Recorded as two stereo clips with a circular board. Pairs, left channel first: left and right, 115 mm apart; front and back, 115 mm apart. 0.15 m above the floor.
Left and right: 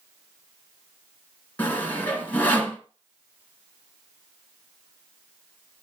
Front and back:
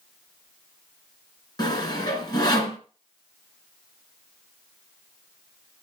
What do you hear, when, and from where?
1.6 s sawing: 25° left, 1.8 m